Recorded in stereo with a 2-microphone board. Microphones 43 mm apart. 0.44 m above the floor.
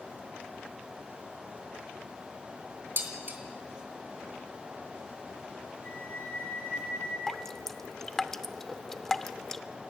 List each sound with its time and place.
3.0 s dishes clattering: 50° right (ahead or behind), 2.5 m
5.8 s a flute: 80° left, 9.5 m
7.3 s dripping: 10° left (ahead or behind), 0.6 m